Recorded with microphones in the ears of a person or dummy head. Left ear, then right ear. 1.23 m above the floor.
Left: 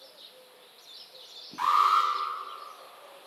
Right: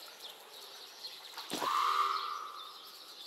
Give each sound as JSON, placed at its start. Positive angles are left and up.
{"t": 1.6, "sound": "an alarm", "side_deg": 25, "distance_m": 3.5}